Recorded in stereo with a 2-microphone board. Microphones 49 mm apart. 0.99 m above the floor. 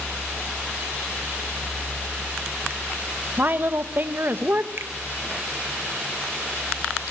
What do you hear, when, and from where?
3.4 s a woman speaking: 45° right (ahead or behind), 1.2 m
4.8 s a finger snap: 55° right (ahead or behind), 1.0 m